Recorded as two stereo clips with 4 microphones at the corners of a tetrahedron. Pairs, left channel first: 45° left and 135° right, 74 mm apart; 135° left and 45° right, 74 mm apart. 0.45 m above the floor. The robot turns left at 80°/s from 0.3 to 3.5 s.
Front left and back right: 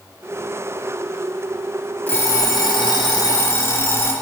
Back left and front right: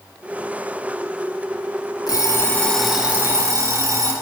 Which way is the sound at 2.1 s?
110° left.